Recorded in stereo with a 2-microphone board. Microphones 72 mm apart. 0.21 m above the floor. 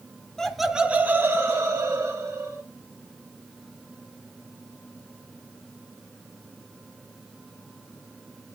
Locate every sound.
0.4 s laughter: 10° left (ahead or behind), 1.2 m; by 2.6 s 50° right (ahead or behind), 3 m